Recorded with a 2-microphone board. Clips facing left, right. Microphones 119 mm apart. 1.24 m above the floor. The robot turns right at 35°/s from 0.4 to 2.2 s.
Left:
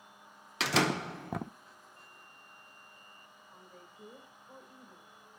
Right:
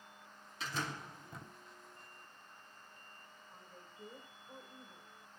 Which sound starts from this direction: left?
A door slam, at 0.6 s.